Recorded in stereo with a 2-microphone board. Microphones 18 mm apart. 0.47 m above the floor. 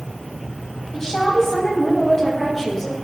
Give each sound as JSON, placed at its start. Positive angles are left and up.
{"t": 0.9, "sound": "a woman speaking", "side_deg": 35, "distance_m": 3.5}